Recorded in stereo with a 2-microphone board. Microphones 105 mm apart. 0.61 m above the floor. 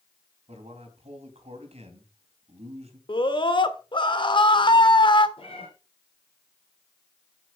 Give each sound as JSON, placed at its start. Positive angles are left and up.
{"t": 0.5, "sound": "a man speaking", "side_deg": -80, "distance_m": 3.5}
{"t": 3.1, "sound": "a scream", "side_deg": 50, "distance_m": 1.5}
{"t": 5.4, "sound": "a cat meowing", "side_deg": 55, "distance_m": 5.5}